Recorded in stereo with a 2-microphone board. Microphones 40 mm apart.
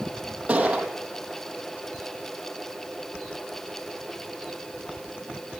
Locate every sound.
0.5 s a gunshot: 30° right (ahead or behind), 3.5 m